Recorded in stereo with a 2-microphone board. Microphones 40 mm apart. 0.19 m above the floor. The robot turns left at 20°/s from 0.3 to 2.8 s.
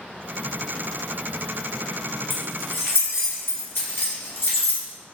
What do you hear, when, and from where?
2.3 s keys jangling: 65° left (ahead or behind), 1.6 m